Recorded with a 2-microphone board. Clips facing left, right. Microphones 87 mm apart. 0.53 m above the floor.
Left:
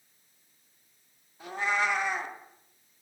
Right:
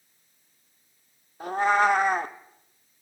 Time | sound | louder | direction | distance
1.4 | a cat meowing | right 8 dB | 45° right (ahead or behind) | 0.6 m